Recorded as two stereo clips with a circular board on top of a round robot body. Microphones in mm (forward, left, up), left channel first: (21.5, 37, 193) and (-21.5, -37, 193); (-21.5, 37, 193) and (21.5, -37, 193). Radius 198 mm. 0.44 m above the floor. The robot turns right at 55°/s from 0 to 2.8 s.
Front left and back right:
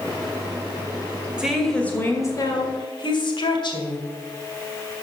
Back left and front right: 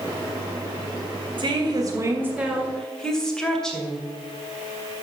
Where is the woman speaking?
40° right, 2.5 m; by 4.1 s 35° left, 2.5 m.